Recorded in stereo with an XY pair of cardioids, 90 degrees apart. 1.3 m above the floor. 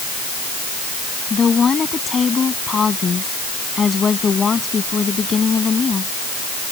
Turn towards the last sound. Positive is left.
turn(degrees=40)